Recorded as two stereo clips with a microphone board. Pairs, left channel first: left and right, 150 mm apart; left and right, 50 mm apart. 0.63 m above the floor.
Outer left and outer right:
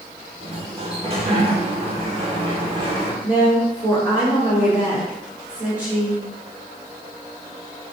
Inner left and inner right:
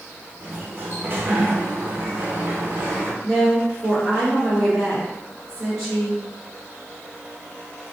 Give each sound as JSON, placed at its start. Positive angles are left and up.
{"t": 0.4, "sound": "a sliding door", "side_deg": -40, "distance_m": 0.6}
{"t": 3.2, "sound": "a woman speaking", "side_deg": -10, "distance_m": 1.9}